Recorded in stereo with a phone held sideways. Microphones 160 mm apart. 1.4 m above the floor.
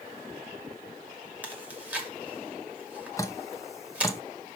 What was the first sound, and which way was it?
Chewing, 10° right (ahead or behind).